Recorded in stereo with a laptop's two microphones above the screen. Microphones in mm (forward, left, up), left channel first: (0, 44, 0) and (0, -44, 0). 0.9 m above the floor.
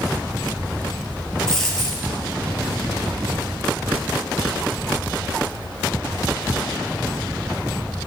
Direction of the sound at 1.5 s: 5° left (ahead or behind).